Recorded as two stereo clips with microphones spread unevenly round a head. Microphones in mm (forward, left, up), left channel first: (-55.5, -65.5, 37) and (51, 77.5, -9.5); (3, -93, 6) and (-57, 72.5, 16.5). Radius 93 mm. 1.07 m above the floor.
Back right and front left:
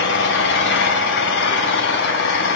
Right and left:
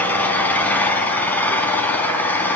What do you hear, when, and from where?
0.0 s an engine running: 150° right, 4 m